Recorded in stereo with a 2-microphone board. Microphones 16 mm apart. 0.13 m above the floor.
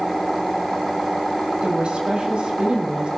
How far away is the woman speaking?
About 6.5 m.